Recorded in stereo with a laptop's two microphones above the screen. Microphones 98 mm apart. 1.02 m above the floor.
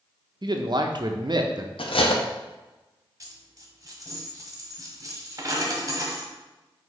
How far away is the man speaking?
About 0.6 m.